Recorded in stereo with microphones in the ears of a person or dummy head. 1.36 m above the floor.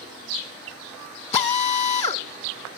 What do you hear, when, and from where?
1.3 s a drill: 35° left (ahead or behind), 2 m